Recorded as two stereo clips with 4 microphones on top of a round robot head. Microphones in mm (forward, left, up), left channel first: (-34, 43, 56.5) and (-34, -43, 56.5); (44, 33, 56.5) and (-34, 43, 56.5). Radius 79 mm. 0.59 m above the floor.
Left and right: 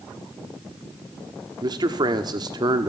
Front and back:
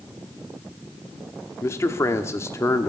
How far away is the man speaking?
About 1.1 m.